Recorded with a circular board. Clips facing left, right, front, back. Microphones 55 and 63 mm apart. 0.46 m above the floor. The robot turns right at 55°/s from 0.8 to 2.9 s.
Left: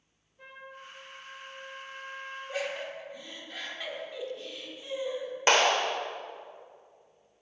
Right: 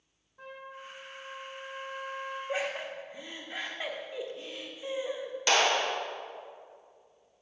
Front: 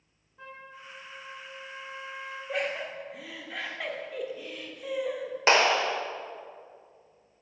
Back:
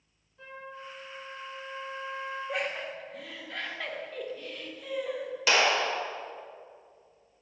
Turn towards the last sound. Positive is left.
turn(degrees=45)